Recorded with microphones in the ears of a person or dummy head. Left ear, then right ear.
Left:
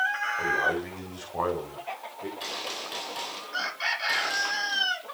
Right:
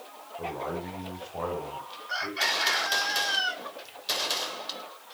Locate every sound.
0.4 s a man speaking: 75° left (ahead or behind), 9 m; by 2.3 s 60° left (ahead or behind), 10.5 m
2.4 s a gunshot: 40° right (ahead or behind), 4 m